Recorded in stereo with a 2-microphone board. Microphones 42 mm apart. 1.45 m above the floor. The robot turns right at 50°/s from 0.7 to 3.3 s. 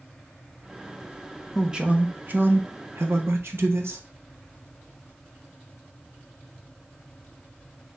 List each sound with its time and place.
1.6 s a man speaking: 165° right, 1.0 m; by 4.0 s 80° right, 1.0 m